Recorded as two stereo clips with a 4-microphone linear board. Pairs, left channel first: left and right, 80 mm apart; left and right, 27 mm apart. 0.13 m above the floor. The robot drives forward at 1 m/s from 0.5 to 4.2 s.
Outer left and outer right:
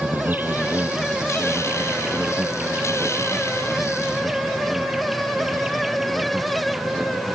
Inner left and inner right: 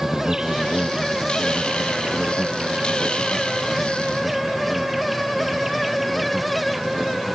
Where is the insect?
25° right (ahead or behind); by 7.3 s 5° right (ahead or behind).